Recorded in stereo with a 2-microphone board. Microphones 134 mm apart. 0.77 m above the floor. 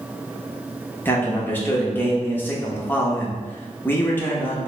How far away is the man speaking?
About 0.8 m.